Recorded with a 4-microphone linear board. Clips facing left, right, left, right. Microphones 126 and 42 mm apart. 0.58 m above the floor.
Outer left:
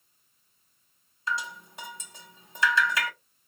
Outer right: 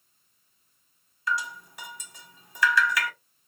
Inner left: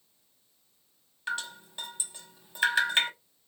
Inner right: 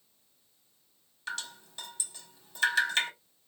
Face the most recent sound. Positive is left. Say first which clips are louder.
# outer right 2 dB, inner left 5 dB
turn(degrees=25)  # may be behind; listen again after turning